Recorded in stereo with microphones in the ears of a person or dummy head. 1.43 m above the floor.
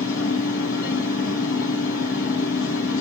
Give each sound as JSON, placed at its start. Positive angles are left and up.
{"t": 0.0, "sound": "a machine running", "side_deg": 75, "distance_m": 2.5}